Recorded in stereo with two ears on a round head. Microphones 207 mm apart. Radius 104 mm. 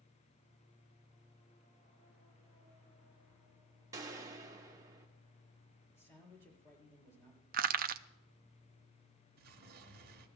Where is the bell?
I don't hear a bell.